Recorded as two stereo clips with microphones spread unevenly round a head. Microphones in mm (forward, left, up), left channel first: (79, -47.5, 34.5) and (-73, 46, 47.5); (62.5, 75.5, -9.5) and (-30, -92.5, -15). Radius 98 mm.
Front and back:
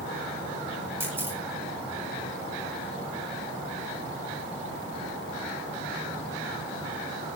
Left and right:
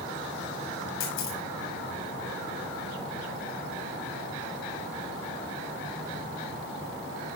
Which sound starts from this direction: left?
A camera shutter, at 1.0 s.